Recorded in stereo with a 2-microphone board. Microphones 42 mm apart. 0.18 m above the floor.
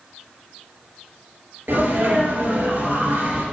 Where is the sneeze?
65° right (ahead or behind), 3.5 m.